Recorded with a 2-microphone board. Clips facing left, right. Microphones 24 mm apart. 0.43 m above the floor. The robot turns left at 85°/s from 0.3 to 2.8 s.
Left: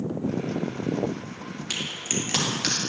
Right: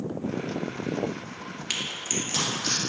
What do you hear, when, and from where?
1.7 s a crack: 20° right (ahead or behind), 2 m; by 2.8 s 70° left (ahead or behind), 2 m